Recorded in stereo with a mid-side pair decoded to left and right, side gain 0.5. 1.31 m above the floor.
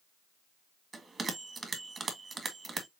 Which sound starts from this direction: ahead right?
A bell, at 0.9 s.